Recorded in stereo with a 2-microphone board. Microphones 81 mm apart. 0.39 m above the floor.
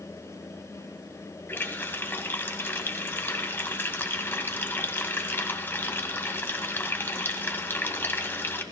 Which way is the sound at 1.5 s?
25° left (ahead or behind).